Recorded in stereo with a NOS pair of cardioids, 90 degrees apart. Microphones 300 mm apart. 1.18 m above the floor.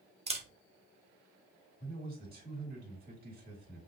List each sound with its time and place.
0.3 s a camera shutter: 20° right, 1.1 m
1.8 s a man speaking: 30° right, 2.5 m